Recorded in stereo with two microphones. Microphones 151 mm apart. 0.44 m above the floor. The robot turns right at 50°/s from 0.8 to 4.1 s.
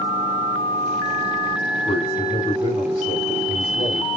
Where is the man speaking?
70° left, 2 m; by 4.2 s straight behind, 2 m.